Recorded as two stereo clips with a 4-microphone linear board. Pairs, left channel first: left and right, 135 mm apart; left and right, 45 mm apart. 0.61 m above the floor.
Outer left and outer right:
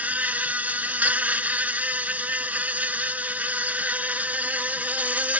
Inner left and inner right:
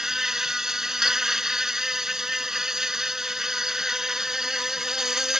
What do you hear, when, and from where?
0.0 s an insect: 10° right (ahead or behind)